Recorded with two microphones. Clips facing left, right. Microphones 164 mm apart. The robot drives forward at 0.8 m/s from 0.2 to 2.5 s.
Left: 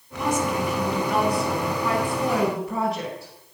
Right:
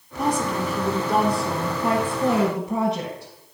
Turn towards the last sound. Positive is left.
turn(degrees=-25)  # may be behind; listen again after turning